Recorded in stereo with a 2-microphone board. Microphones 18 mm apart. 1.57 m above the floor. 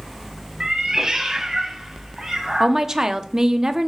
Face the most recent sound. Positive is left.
turn(degrees=-35)  # may be behind; listen again after turning